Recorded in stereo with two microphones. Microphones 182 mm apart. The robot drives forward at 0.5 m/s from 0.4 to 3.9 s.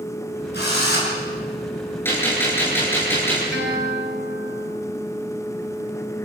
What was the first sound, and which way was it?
A drill, 60° left (ahead or behind).